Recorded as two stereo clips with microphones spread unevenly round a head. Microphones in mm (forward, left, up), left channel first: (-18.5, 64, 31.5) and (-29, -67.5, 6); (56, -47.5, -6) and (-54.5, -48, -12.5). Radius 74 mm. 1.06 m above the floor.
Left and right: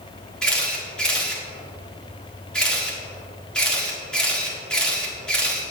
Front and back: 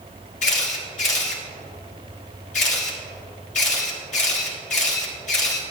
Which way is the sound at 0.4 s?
5° right.